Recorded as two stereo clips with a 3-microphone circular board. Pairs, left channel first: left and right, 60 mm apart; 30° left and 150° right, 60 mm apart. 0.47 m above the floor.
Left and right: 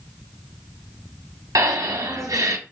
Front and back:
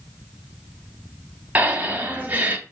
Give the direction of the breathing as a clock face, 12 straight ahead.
3 o'clock.